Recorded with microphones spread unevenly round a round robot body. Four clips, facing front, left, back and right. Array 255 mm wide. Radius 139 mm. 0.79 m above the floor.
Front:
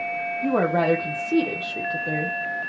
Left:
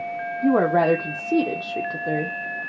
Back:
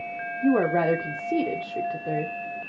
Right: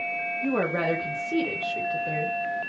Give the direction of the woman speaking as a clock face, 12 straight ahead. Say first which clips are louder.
Left 8 dB, even; 10 o'clock.